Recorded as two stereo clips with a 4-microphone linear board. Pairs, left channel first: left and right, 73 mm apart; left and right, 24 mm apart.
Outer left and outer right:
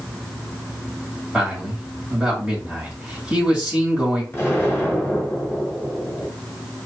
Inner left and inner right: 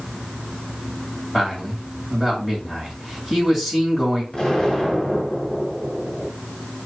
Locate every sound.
1.3 s a man speaking: 15° right (ahead or behind), 1.5 m
4.3 s an explosion: 30° left (ahead or behind), 1.6 m